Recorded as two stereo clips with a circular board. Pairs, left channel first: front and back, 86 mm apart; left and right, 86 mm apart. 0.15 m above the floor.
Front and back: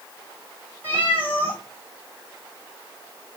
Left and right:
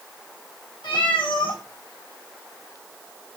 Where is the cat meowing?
70° left, 1.7 m.